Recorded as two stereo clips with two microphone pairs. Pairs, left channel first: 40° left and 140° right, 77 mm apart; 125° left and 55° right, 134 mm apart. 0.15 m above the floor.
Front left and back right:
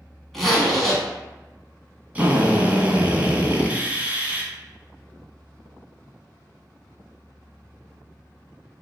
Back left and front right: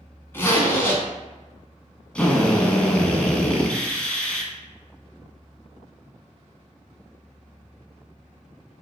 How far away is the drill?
About 0.5 m.